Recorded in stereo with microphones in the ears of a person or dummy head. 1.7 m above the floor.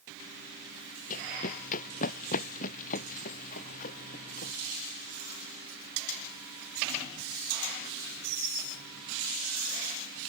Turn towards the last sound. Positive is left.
turn(degrees=50)  # may be behind; listen again after turning